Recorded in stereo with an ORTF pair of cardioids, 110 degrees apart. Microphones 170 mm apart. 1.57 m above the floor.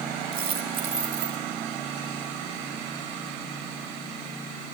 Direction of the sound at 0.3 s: 65° right.